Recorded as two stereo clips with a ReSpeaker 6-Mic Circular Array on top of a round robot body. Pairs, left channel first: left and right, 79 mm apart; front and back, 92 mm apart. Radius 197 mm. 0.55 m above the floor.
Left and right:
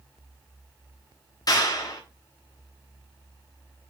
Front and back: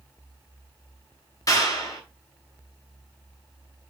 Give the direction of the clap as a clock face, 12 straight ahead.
10 o'clock.